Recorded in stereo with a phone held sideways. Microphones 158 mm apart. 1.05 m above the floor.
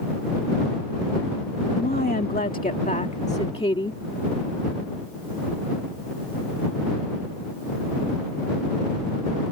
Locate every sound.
1.8 s a woman speaking: 80° left; by 4.0 s 30° left (ahead or behind)